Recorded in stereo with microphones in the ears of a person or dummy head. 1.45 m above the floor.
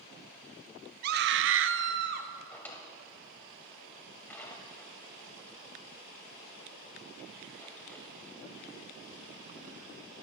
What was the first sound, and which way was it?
A scream, 50° right (ahead or behind).